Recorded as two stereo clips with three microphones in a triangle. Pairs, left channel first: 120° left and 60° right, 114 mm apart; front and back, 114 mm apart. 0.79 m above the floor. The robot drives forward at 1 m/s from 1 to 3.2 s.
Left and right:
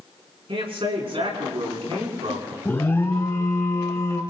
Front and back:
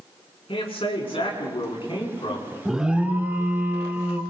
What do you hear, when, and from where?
0.5 s a man speaking: 30° right, 7.5 m; by 2.5 s 35° right, 6.5 m
2.6 s an alarm: 95° left, 1.5 m; by 4.2 s 135° left, 1.6 m